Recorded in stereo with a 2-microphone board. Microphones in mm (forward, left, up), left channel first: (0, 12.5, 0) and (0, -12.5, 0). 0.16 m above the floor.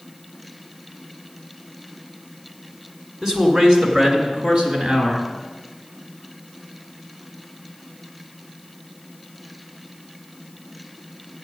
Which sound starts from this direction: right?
A man speaking, at 3.2 s.